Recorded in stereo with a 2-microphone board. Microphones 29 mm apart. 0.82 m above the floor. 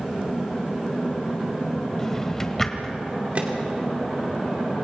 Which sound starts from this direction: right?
A microwave, at 3.4 s.